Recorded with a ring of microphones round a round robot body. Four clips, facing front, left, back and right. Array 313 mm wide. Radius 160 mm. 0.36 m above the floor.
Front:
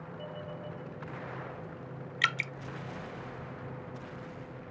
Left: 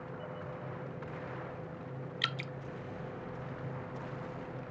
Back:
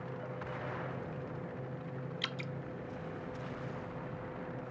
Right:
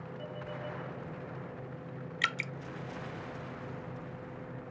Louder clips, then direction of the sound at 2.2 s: Right 5 dB, front 8 dB; 20° right.